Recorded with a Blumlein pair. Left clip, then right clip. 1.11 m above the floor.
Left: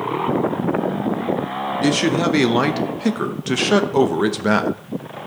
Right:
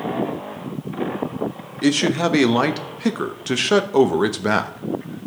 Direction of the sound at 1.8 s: Straight ahead.